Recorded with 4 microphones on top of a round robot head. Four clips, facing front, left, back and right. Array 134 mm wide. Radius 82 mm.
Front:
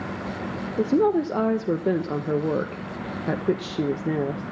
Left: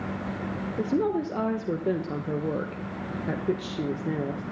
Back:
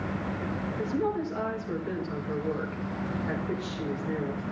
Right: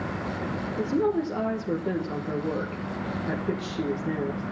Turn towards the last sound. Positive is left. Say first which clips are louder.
# right 1 dB, front 10 dB
turn(degrees=10)